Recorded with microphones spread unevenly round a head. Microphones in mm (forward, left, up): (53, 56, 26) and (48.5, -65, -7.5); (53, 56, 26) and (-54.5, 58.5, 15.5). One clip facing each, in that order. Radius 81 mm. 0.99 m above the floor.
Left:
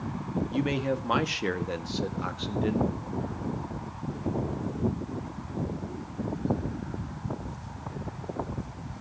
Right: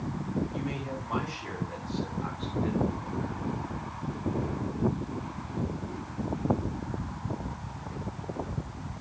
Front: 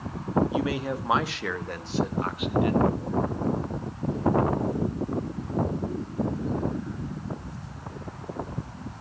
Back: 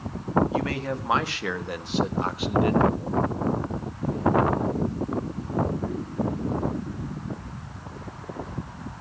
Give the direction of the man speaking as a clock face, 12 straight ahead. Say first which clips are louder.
Left 7 dB, even; 10 o'clock.